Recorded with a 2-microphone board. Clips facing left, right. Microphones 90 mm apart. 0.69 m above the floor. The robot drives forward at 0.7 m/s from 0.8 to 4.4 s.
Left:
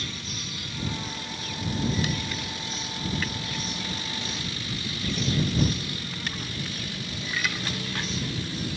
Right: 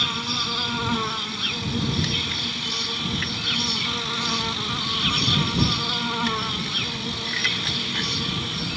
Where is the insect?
75° right (ahead or behind); by 8.8 s 80° right.